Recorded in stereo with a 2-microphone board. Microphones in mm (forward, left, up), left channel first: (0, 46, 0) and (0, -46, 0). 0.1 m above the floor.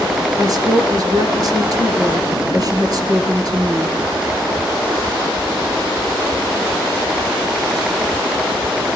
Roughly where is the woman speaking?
Right.